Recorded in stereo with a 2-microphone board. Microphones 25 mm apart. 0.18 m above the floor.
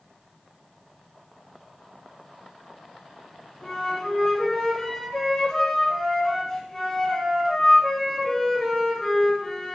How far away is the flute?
About 3 m.